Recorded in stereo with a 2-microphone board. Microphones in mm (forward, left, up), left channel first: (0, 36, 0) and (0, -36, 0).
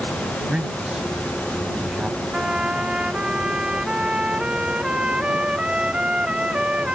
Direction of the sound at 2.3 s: 15° right (ahead or behind).